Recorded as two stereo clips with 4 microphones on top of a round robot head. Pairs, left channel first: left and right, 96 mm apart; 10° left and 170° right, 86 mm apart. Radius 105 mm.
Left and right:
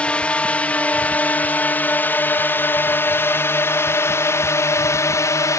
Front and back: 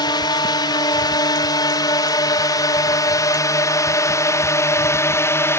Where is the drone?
15° left; by 5.6 s 55° left.